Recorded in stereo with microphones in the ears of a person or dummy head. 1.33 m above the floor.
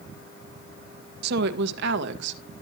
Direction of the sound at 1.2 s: 60° right (ahead or behind).